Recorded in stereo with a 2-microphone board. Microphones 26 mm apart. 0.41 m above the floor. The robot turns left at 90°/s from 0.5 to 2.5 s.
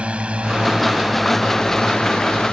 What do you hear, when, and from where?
0.0 s a drone: 50° right (ahead or behind); by 2.5 s 60° left (ahead or behind)